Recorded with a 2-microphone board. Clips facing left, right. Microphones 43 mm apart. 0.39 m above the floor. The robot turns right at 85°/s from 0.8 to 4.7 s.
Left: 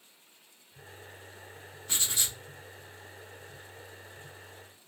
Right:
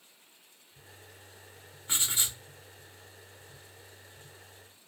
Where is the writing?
25° right (ahead or behind), 0.7 m; by 2.4 s 20° right (ahead or behind), 0.7 m.